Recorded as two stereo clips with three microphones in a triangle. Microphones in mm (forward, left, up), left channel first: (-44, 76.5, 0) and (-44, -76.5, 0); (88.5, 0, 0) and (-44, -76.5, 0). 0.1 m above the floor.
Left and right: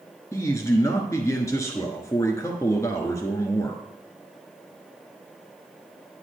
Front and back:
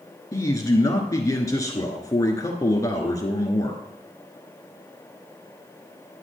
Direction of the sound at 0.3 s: 55° left.